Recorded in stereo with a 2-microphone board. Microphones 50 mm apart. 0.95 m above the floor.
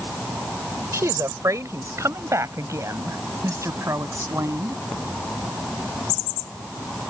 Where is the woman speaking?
85° right; by 4.8 s 80° right.